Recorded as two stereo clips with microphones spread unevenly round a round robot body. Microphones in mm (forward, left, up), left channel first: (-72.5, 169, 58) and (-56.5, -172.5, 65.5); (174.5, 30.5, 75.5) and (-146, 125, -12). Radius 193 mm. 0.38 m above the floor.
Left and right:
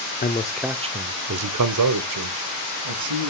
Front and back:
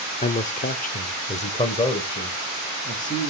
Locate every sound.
0.2 s a man speaking: 65° left, 0.9 m; by 3.3 s 100° right, 2.5 m